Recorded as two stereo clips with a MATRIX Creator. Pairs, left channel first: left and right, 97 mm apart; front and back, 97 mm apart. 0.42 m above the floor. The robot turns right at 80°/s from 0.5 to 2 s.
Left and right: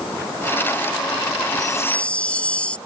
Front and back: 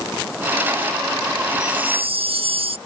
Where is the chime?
135° left; by 2.8 s 170° left.